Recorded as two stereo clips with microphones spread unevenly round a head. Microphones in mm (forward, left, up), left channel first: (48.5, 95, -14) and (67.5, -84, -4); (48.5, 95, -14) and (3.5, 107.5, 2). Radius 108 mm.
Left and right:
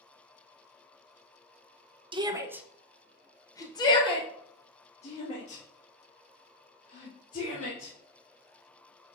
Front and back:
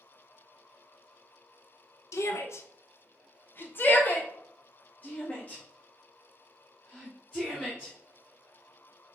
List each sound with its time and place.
2.1 s a shout: 20° right, 0.8 m; by 7.9 s 55° left, 3 m